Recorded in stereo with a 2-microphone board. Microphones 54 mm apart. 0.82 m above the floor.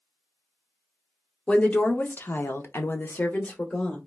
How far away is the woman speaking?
About 0.8 m.